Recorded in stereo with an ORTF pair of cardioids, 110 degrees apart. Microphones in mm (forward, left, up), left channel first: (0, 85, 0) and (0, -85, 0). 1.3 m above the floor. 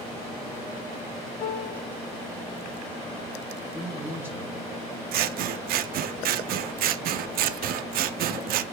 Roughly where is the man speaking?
Ahead.